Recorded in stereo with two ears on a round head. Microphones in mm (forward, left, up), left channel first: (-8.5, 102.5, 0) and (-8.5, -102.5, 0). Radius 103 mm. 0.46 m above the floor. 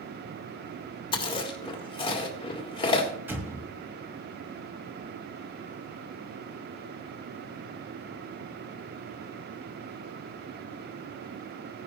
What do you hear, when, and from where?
1.1 s chewing: 20° left (ahead or behind), 1.7 m
3.3 s an explosion: 10° right (ahead or behind), 1.4 m